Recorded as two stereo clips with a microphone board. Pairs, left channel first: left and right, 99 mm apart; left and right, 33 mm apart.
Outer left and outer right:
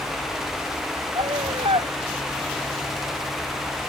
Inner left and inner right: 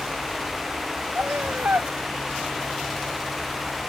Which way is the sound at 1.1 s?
75° right (ahead or behind).